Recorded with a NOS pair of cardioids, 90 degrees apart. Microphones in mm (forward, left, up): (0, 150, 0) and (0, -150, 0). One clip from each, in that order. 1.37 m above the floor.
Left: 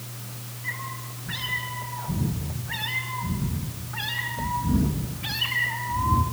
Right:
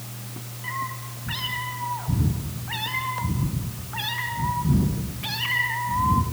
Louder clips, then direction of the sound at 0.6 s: Right 3 dB; 60° right.